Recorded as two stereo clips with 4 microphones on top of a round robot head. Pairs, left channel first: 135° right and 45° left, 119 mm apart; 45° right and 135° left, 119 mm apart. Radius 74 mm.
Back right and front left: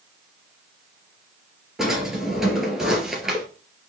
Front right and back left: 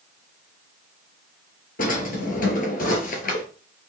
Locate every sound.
1.8 s a drawer: 40° right, 3.5 m